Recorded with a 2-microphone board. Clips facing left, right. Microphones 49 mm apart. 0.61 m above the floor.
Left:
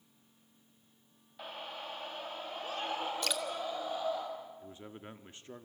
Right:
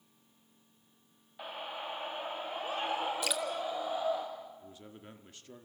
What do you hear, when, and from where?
1.4 s a scream: 10° right (ahead or behind), 1.1 m
3.2 s dripping: 5° right (ahead or behind), 1.6 m
4.6 s a man speaking: 30° left (ahead or behind), 1.4 m